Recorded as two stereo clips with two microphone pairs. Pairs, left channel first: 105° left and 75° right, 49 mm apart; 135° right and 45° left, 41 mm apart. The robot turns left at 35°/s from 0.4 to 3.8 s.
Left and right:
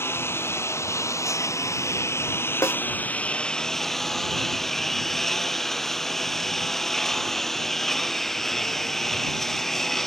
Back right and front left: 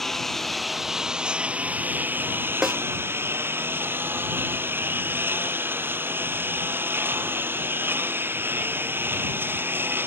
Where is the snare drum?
115° left; by 2.8 s 110° left.